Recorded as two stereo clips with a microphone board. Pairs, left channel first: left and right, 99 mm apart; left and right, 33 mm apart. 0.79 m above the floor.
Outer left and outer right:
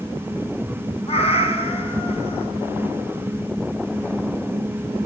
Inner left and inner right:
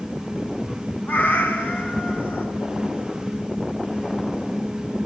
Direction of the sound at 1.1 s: 90° left.